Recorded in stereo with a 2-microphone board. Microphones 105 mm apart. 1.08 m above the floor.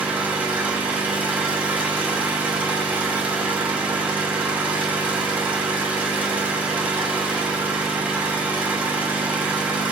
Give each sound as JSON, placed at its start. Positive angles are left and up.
{"t": 0.0, "sound": "an engine running", "side_deg": -15, "distance_m": 2.5}